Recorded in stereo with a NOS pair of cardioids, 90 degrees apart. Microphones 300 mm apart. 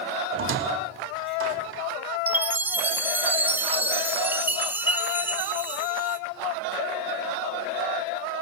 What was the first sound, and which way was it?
A squeak, 45° right.